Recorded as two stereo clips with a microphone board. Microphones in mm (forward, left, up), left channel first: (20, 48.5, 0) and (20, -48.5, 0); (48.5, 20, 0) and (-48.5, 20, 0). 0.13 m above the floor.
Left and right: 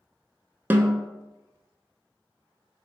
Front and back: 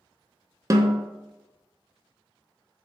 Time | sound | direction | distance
0.7 | a snare drum | 150° right | 0.6 m